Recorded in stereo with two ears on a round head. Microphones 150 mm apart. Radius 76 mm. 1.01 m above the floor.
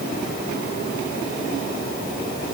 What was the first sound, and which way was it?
Only background noise.